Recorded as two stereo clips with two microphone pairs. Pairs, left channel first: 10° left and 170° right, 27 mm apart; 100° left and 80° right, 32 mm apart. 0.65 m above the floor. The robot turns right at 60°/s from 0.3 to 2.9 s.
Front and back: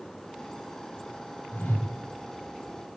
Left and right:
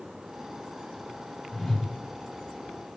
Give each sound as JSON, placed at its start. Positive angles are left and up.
{"t": 1.5, "sound": "a whoosh", "azimuth_deg": 0, "distance_m": 3.5}